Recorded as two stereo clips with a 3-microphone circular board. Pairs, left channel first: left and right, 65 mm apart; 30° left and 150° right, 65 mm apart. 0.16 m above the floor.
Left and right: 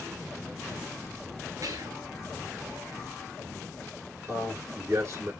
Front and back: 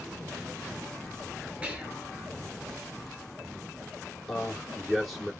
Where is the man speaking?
60° right, 2.5 m.